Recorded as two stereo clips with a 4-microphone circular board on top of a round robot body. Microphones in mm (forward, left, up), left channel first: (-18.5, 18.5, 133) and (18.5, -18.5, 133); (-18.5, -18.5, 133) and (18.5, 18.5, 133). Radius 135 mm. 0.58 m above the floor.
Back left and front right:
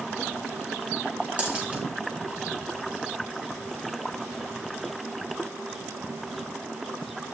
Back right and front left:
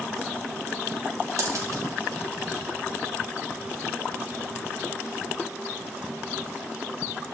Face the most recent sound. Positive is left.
turn(degrees=25)